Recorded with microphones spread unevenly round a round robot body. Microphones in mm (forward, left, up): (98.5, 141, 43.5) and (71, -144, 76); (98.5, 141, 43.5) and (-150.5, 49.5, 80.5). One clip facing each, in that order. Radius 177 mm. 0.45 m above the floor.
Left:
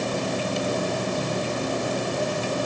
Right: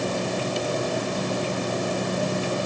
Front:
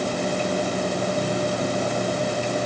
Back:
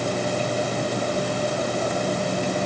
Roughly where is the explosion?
I don't hear an explosion.